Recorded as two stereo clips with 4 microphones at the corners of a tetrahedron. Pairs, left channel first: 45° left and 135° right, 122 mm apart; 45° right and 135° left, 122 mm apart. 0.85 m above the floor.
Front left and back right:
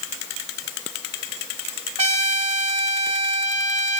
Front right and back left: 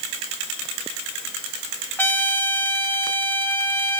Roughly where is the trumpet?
Behind right.